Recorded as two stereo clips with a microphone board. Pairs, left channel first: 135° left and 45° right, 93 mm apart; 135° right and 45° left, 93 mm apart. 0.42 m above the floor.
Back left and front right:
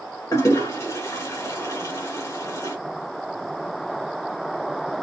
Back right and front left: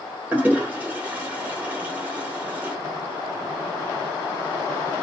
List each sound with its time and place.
0.3 s a toilet flushing: 105° left, 0.9 m